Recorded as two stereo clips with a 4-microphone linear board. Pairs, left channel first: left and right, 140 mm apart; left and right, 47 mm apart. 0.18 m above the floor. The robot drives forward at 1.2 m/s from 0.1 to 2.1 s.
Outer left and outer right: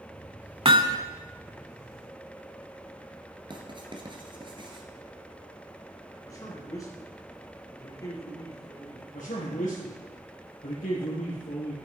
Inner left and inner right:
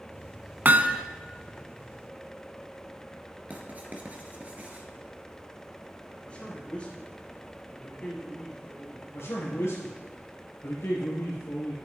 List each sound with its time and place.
0.7 s hammering: 40° right (ahead or behind), 0.6 m; by 1.0 s 25° right (ahead or behind), 0.9 m
3.5 s writing: 35° right (ahead or behind), 1.9 m
6.2 s a man speaking: 25° left (ahead or behind), 4 m
9.1 s a man speaking: 60° left (ahead or behind), 3.5 m